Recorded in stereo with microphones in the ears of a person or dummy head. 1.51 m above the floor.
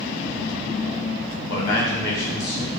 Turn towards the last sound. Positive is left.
turn(degrees=65)  # may be behind; listen again after turning